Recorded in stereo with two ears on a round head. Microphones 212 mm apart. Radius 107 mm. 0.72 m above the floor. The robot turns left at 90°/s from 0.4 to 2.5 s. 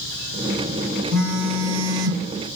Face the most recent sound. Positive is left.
turn(degrees=-120)